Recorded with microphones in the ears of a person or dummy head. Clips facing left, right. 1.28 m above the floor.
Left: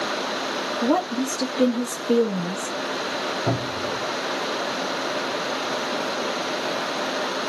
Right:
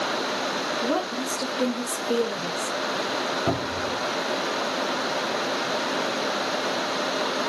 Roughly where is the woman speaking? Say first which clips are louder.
Left 6 dB; left.